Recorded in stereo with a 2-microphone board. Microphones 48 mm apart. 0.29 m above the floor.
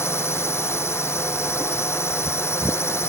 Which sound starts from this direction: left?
A drone, at 0.0 s.